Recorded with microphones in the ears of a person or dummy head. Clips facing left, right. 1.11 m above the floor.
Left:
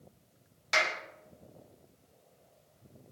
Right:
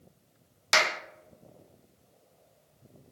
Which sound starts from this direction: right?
A clap, at 0.7 s.